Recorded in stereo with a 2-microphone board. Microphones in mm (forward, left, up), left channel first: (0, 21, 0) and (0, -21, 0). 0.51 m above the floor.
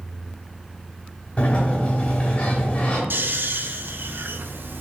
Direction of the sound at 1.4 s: 30° left (ahead or behind).